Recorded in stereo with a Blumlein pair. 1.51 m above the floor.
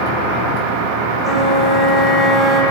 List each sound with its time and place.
1.2 s a flute: 10° left, 1.5 m